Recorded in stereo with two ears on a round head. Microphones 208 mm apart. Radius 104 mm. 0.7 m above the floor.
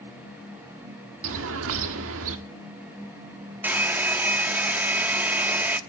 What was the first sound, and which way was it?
A bird, 60° right (ahead or behind).